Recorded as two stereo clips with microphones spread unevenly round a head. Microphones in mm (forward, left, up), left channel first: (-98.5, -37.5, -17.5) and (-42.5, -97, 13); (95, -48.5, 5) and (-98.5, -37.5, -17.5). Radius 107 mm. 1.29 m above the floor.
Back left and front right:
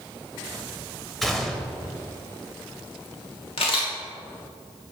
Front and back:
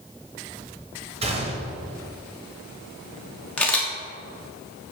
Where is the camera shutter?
75° left, 1.2 m.